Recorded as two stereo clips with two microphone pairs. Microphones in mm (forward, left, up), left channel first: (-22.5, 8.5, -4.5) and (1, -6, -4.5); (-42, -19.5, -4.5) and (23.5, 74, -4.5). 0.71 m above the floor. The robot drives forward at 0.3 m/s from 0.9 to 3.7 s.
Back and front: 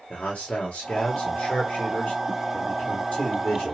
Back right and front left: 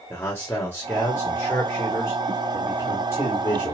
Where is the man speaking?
165° left, 1.3 m; by 3.8 s 175° left, 2 m.